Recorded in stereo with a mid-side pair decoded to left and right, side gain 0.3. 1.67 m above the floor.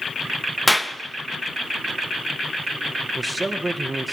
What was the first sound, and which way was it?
A clap, 5° left.